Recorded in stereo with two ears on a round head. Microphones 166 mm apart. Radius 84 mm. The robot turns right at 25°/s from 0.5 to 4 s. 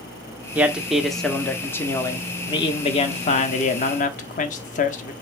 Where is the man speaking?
10° right, 1.0 m; by 5.1 s 75° left, 1.0 m.